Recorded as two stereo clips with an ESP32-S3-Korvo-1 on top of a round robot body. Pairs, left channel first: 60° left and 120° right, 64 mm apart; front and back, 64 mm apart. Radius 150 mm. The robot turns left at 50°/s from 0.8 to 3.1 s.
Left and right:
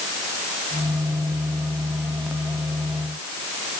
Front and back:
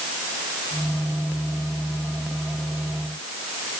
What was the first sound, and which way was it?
Only background noise.